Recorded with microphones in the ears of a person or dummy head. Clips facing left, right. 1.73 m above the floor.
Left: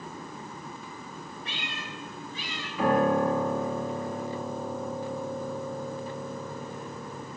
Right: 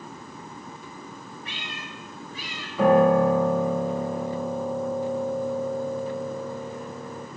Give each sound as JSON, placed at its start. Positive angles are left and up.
{"t": 1.4, "sound": "a cat meowing", "side_deg": 30, "distance_m": 5.0}
{"t": 2.8, "sound": "a piano", "side_deg": -55, "distance_m": 2.5}